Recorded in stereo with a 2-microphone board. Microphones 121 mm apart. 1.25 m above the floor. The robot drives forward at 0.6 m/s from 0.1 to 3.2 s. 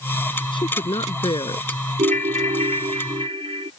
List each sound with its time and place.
0.5 s a woman speaking: 45° left (ahead or behind)
2.0 s a ringtone: 80° right; by 3.7 s 50° right (ahead or behind)